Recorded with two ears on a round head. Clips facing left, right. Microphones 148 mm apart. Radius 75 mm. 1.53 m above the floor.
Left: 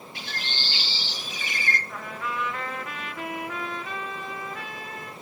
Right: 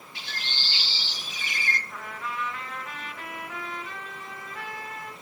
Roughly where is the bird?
Left.